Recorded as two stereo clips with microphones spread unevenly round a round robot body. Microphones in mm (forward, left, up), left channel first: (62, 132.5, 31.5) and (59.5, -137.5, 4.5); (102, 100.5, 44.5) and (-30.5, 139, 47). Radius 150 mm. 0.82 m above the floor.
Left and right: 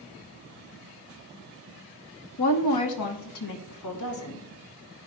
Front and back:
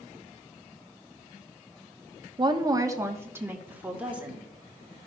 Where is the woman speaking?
110° left, 1.2 m; by 4.5 s 80° left, 3 m.